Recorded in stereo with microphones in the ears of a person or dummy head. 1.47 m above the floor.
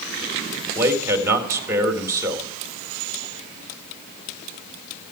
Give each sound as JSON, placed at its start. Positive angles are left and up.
{"t": 0.8, "sound": "a man speaking", "side_deg": -10, "distance_m": 1.7}